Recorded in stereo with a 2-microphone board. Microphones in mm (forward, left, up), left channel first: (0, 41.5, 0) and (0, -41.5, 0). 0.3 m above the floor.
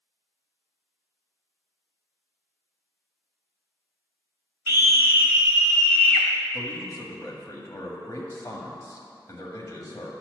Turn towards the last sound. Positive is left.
turn(degrees=45)  # may be behind; listen again after turning